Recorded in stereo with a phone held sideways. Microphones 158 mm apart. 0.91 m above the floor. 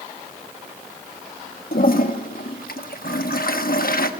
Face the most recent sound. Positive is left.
turn(degrees=65)  # may be behind; listen again after turning